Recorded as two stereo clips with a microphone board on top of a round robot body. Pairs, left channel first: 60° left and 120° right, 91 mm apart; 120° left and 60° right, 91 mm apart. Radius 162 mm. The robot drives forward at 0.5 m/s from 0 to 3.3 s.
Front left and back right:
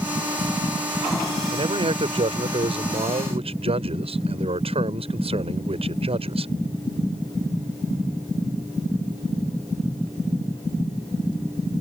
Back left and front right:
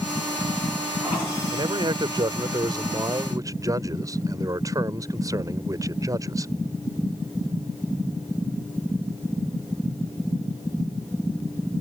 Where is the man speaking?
95° right; by 6.5 s 115° right.